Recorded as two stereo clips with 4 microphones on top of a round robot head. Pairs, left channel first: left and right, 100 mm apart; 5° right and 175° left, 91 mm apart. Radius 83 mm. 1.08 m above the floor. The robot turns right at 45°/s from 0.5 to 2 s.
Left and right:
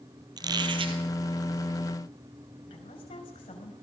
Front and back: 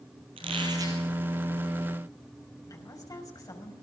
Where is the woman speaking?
40° left, 5.5 m.